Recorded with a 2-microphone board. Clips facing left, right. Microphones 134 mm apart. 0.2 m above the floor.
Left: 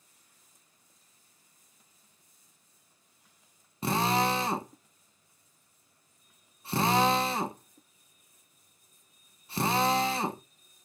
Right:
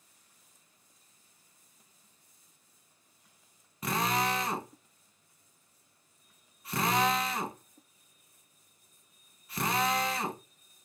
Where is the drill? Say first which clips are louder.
Left 3 dB; 30° left (ahead or behind), 0.7 m.